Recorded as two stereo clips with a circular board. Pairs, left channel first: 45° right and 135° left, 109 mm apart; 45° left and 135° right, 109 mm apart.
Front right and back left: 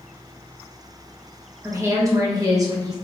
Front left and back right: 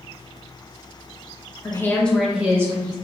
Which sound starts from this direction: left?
A woman speaking, at 1.6 s.